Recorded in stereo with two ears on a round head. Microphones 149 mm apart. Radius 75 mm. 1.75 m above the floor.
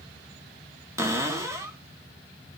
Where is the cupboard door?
15° right (ahead or behind), 1.3 m.